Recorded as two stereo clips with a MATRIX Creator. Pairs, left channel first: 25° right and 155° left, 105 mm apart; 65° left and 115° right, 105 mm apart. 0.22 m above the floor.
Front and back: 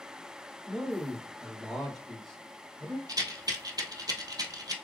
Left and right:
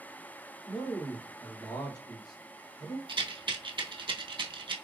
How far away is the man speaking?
About 1.9 m.